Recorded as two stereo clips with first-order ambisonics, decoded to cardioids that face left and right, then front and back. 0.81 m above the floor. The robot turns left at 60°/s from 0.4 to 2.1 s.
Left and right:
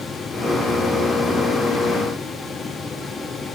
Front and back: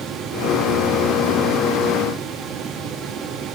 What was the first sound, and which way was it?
Only background noise.